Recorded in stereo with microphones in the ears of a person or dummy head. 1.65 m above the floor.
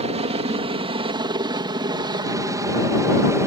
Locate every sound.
0.0 s a helicopter: 25° right (ahead or behind); by 3.5 s 10° right (ahead or behind)